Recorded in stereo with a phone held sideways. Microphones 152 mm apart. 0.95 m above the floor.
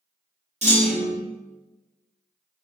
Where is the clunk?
50° right (ahead or behind), 1.1 m.